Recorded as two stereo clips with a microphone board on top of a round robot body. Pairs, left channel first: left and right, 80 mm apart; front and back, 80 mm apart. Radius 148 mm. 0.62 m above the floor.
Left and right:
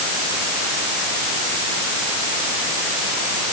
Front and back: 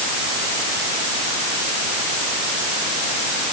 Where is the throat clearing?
I don't hear throat clearing.